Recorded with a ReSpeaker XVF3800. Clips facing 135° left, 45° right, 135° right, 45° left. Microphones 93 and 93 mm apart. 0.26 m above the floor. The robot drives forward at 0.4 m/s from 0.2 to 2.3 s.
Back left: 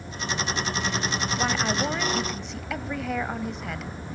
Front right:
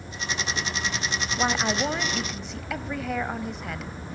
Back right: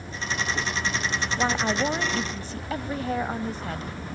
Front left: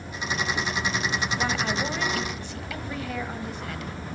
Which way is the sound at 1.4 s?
100° right.